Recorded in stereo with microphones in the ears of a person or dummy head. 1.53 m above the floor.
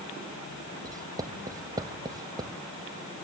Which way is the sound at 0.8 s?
20° right (ahead or behind).